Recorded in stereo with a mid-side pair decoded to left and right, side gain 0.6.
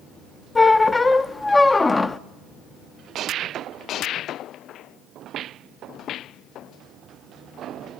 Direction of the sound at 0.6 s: 15° left.